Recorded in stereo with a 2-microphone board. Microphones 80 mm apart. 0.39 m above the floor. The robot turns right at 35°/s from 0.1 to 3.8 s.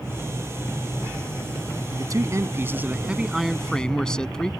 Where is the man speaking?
55° right; by 4.5 s 10° left.